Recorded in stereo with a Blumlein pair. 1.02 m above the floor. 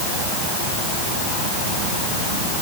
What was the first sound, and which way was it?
Only background noise.